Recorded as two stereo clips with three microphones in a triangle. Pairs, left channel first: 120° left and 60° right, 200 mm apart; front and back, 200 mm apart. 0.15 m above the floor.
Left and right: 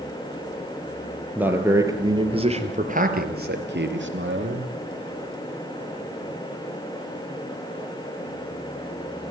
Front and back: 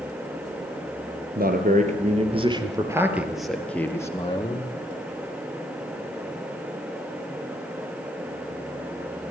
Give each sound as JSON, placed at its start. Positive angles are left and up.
{"t": 1.4, "sound": "a man speaking", "azimuth_deg": -140, "distance_m": 4.0}